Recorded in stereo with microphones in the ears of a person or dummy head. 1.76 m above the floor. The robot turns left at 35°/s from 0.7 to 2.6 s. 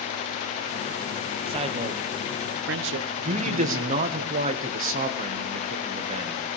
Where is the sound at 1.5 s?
30° right, 1.0 m; by 4.2 s 70° right, 1.0 m.